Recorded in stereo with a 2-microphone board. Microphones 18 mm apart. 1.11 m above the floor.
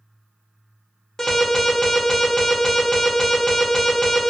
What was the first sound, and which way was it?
An alarm, 40° left (ahead or behind).